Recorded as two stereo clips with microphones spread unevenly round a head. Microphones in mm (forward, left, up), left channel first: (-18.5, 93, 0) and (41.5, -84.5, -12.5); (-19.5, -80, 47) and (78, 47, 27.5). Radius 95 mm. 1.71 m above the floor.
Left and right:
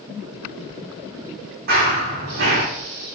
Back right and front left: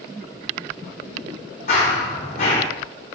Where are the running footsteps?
110° right, 3.5 m.